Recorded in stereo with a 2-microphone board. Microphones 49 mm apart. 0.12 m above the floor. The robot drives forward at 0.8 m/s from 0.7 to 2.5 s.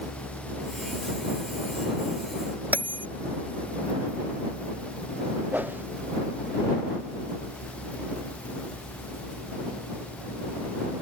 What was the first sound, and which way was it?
A bell, 35° right (ahead or behind).